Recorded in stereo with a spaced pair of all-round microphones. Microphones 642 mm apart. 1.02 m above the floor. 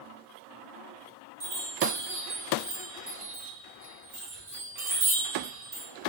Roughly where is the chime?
Right.